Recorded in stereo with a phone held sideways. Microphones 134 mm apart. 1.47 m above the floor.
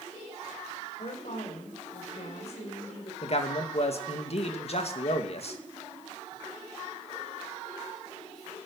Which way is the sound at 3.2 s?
50° left (ahead or behind).